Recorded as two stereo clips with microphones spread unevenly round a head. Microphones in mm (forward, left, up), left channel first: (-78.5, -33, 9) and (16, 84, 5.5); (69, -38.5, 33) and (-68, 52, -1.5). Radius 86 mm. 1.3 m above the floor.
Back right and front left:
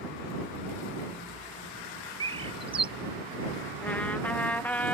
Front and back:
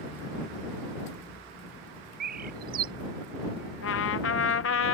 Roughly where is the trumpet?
Ahead right.